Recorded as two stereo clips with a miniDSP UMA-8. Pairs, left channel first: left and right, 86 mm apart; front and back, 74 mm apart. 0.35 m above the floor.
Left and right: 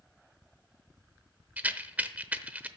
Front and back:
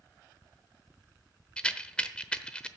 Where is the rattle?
55° right, 0.8 m.